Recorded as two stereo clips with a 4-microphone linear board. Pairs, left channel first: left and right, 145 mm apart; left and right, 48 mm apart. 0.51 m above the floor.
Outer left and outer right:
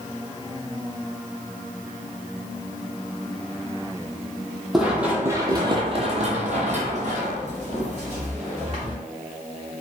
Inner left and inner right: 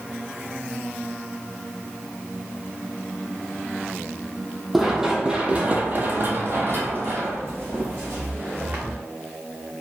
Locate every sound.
4.7 s running footsteps: 5° right (ahead or behind), 0.8 m; by 9.0 s 50° right (ahead or behind), 1.9 m